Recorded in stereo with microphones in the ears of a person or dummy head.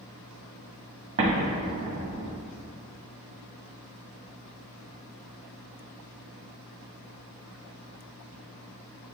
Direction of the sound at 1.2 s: 25° right (ahead or behind).